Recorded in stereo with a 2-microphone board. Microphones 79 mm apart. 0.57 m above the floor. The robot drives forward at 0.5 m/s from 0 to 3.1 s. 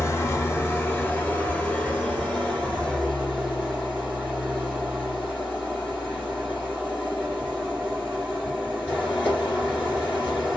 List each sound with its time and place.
0.0 s an engine running: 40° left (ahead or behind), 0.8 m; by 10.6 s 15° left (ahead or behind), 2 m